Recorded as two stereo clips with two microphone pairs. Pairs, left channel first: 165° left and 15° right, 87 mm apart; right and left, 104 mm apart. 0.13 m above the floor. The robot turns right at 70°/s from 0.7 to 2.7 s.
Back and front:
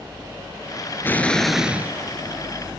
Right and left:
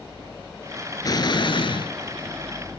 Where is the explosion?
135° right, 1.0 m; by 1.9 s 75° right, 1.0 m.